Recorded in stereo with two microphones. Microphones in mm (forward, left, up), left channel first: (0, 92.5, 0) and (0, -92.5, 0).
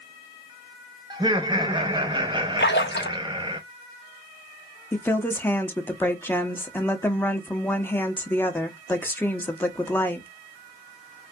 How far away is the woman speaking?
About 0.8 m.